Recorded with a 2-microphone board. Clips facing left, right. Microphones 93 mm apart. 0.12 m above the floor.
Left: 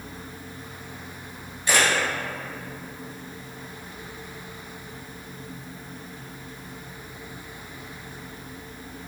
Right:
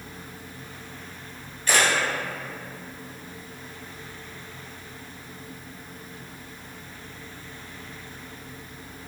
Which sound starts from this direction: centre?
A camera shutter, at 1.7 s.